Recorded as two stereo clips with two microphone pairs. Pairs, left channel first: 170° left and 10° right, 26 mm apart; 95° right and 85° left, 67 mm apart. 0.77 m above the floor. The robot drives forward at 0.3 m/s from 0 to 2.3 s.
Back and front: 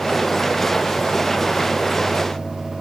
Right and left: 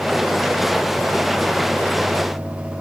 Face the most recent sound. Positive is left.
No sound to turn to.